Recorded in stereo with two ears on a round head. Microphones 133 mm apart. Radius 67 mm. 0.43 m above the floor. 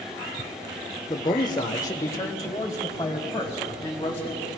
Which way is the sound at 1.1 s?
30° left (ahead or behind).